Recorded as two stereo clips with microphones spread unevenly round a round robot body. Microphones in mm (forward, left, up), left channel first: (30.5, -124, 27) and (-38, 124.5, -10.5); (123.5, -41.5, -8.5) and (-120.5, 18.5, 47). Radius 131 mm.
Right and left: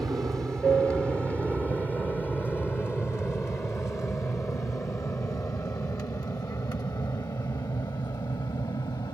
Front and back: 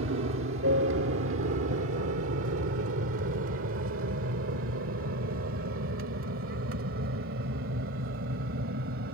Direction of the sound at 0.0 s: 175° right.